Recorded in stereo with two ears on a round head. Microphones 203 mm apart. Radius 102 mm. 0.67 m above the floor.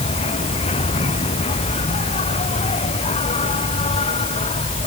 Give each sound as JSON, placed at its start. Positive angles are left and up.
{"t": 0.0, "sound": "an insect", "side_deg": 25}